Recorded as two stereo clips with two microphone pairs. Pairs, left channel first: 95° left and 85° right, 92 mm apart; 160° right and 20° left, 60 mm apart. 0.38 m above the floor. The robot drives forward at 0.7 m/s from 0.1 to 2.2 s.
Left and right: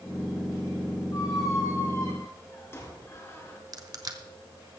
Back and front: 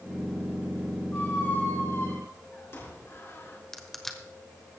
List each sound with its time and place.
1.1 s a squeak: 140° left, 1.9 m; by 3.6 s 150° left, 2.5 m
3.7 s crushing: 80° right, 1.2 m